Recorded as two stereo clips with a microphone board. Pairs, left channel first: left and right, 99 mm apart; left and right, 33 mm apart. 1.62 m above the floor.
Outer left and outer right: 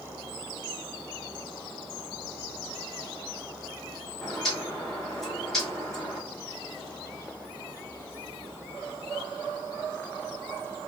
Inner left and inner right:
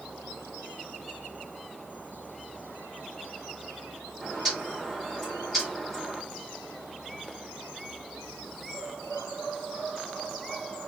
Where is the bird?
5° left (ahead or behind), 1.1 m.